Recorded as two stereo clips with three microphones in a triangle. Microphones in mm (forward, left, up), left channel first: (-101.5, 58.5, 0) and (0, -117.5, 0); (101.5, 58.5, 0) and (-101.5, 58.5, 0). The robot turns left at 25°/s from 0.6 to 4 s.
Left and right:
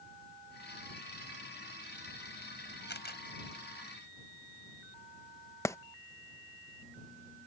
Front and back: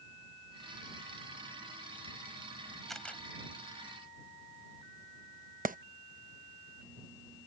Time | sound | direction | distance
2.9 | a camera shutter | 90° left | ?
5.7 | a clap | 170° right | ?